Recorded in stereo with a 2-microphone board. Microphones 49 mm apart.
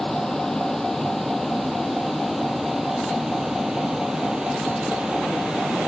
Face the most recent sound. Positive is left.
turn(degrees=-15)  # may be behind; listen again after turning